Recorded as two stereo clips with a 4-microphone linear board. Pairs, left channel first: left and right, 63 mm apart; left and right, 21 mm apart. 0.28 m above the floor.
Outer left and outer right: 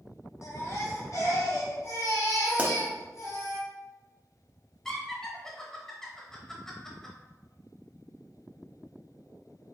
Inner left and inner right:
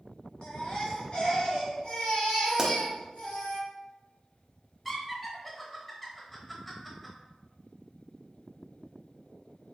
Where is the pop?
25° right (ahead or behind), 0.7 m.